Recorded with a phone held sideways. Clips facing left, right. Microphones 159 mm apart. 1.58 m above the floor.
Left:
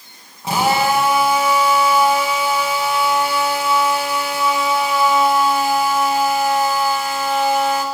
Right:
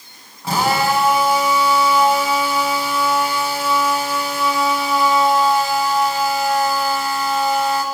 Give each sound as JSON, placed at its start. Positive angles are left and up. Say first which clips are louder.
{"t": 0.4, "sound": "a drill", "louder": "left 1 dB", "side_deg": 20, "distance_m": 8.5}